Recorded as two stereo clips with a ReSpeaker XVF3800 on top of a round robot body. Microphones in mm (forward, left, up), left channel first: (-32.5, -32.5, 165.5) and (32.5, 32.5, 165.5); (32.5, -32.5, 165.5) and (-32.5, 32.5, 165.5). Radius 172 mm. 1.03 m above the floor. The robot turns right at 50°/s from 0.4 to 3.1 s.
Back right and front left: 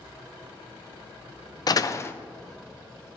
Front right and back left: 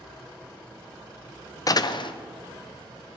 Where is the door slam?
95° right, 0.6 m; by 2.1 s 70° right, 0.6 m.